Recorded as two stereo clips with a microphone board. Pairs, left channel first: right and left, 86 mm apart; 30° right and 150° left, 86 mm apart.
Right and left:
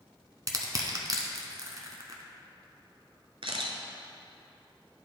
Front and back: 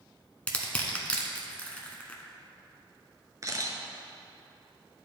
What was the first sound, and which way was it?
Crushing, 45° left.